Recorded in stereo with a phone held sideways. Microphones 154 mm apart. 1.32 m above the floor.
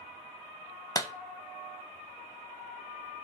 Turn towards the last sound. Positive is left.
turn(degrees=25)  # may be behind; listen again after turning